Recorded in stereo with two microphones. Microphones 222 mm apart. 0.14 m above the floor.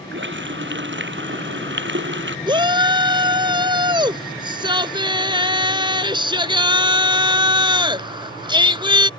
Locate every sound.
0.1 s a running tap: 60° right (ahead or behind)
2.5 s a shout: 20° right (ahead or behind)